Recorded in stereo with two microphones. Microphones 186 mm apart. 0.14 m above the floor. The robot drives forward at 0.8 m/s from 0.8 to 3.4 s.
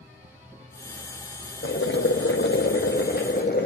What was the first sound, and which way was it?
Boiling, 75° left (ahead or behind).